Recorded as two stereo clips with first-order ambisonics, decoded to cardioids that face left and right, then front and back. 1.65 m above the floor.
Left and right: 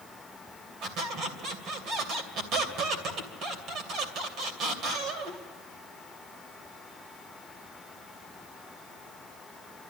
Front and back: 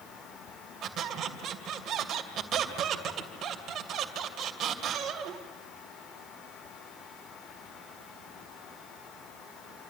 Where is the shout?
I don't hear a shout.